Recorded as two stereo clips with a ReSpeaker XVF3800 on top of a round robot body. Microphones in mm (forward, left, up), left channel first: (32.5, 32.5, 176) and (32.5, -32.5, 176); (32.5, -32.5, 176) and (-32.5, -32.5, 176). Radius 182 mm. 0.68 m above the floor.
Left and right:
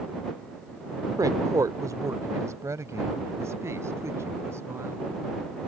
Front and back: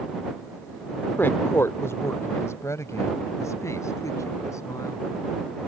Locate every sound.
1.2 s a woman speaking: 60° right; by 5.0 s 40° right